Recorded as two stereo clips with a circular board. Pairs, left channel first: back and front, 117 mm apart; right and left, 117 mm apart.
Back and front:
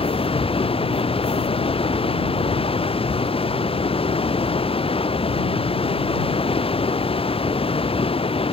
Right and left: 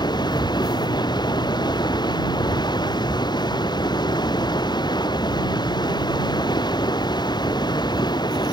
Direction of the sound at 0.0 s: 140° right.